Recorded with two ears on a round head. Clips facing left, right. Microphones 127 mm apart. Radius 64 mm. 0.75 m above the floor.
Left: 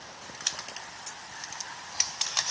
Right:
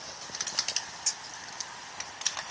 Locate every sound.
Only background noise.